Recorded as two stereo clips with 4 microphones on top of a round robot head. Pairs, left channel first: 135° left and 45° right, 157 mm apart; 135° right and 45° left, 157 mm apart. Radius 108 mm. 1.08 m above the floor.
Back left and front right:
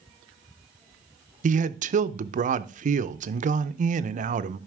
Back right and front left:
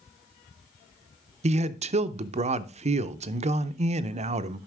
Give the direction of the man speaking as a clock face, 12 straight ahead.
12 o'clock.